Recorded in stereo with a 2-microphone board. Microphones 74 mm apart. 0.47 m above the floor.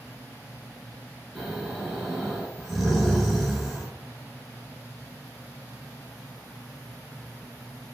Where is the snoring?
5° right (ahead or behind), 1.3 m.